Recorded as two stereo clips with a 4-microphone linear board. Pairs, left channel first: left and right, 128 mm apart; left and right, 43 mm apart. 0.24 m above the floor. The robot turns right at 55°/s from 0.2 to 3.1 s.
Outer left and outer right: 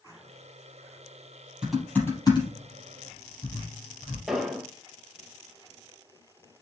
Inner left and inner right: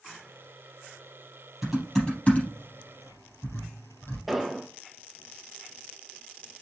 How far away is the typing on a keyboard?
About 4 m.